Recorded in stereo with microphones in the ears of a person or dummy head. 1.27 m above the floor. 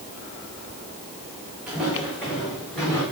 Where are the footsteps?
10° right (ahead or behind), 4.5 m; by 3.0 s 5° left (ahead or behind), 4 m.